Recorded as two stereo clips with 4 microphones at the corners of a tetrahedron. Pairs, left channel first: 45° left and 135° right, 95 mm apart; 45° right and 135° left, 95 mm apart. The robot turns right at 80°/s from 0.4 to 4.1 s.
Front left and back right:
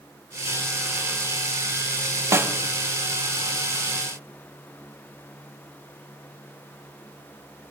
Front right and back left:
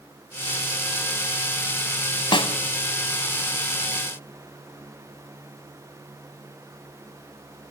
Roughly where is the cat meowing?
I don't hear a cat meowing.